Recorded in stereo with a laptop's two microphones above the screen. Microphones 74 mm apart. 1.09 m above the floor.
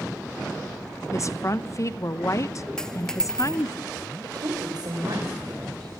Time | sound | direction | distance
1.1 | a woman speaking | 45° left (ahead or behind) | 0.8 m
2.8 | a dropped coin | 5° left (ahead or behind) | 1.1 m
4.2 | a woman speaking | 65° right (ahead or behind) | 4 m